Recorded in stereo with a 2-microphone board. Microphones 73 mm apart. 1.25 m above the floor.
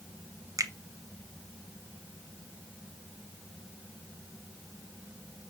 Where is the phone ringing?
I don't hear a phone ringing.